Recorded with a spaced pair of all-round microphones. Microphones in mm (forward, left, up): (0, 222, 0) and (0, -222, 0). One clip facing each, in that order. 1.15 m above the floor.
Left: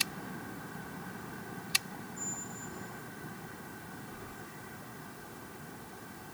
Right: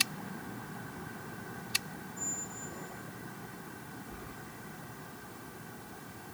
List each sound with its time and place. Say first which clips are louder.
2.2 s a squeak: even; 70° right (ahead or behind), 1.6 m
4.1 s keys jangling: even; 50° right (ahead or behind), 8 m